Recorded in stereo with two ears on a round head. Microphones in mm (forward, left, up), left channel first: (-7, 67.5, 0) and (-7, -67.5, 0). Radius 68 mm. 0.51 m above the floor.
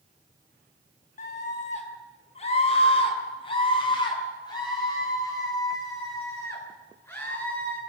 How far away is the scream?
About 5 m.